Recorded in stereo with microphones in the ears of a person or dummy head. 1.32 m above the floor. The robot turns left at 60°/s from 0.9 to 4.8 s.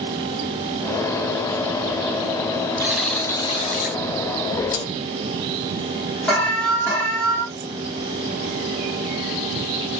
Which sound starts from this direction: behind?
A buzzer, at 2.8 s.